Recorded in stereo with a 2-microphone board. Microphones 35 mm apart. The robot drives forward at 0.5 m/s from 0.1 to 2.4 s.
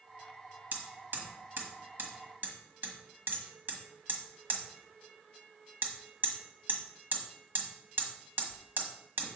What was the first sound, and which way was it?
Hammering, 70° right (ahead or behind).